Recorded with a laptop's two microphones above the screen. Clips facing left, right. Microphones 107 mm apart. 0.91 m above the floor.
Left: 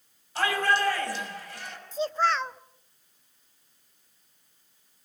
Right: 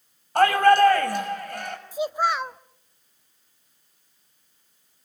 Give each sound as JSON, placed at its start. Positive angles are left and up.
{"t": 0.3, "sound": "a shout", "side_deg": -55, "distance_m": 5.5}
{"t": 1.9, "sound": "a child speaking", "side_deg": -10, "distance_m": 0.8}